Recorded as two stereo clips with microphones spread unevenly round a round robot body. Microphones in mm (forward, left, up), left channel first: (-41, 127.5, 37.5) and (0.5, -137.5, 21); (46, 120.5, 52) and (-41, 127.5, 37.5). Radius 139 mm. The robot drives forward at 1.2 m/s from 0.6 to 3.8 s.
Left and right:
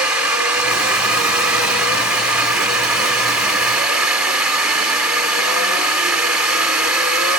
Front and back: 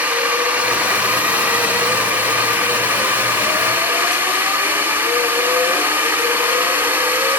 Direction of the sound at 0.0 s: 160° right.